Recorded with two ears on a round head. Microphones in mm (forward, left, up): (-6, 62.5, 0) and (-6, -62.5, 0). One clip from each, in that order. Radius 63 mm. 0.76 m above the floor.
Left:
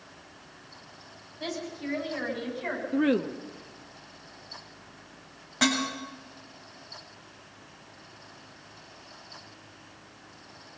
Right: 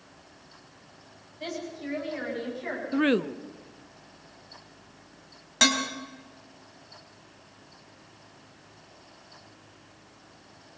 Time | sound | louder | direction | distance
1.4 | a woman speaking | left 1 dB | 10° left (ahead or behind) | 7.5 m
2.9 | a woman speaking | right 2 dB | 45° right (ahead or behind) | 0.8 m
5.6 | dishes clattering | right 3 dB | 80° right | 3.5 m